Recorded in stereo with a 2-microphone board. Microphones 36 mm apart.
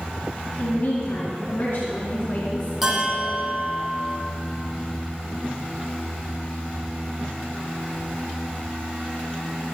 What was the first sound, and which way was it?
A woman speaking, 65° left (ahead or behind).